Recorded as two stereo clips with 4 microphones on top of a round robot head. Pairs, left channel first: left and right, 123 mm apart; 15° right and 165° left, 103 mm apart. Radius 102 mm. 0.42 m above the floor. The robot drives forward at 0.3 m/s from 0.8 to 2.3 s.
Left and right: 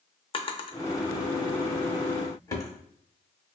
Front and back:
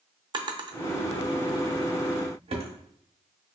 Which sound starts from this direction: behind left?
A drawer, at 0.3 s.